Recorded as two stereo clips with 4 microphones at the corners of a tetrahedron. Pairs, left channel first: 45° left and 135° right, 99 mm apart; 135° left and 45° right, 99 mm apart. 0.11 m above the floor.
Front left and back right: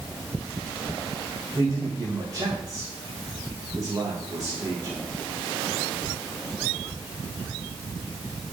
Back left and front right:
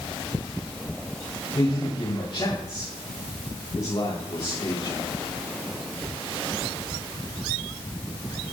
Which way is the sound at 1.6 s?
170° left.